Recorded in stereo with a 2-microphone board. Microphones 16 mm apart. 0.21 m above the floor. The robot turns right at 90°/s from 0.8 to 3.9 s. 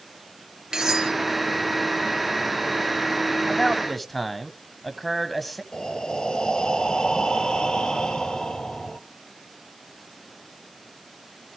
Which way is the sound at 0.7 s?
55° right (ahead or behind).